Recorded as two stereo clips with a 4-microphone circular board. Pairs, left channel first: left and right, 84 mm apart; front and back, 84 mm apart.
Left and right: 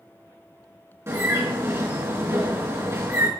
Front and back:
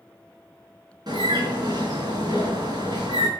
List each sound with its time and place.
1.1 s a bird: 145° right, 4 m